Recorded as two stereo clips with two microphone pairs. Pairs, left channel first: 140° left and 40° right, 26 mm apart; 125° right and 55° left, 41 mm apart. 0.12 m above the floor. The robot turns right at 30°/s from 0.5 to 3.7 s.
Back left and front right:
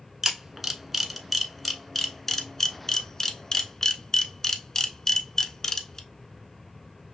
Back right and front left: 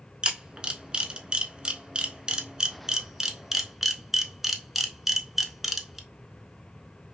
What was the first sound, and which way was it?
A camera shutter, 35° left.